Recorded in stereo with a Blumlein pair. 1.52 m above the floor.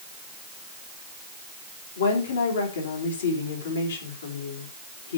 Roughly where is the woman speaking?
Ahead left.